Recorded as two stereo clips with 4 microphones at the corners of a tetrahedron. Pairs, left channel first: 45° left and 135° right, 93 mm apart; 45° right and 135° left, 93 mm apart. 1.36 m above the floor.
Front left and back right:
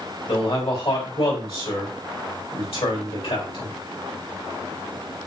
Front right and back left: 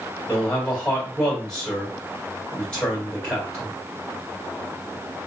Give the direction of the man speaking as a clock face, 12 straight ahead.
11 o'clock.